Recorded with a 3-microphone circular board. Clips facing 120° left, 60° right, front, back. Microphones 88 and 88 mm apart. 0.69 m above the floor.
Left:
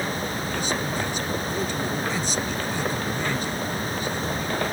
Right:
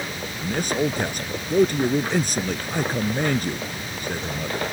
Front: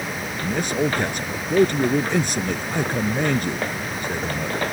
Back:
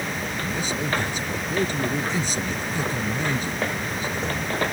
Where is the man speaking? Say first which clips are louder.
Right 9 dB, front 8 dB; 25° right.